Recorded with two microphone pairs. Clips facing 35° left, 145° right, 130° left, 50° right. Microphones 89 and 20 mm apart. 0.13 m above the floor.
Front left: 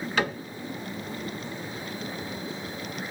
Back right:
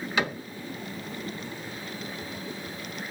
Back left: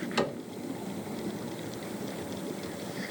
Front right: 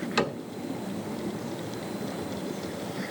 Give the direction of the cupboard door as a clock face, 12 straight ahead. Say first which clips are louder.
Front left 1 dB, front right 3 dB; 2 o'clock.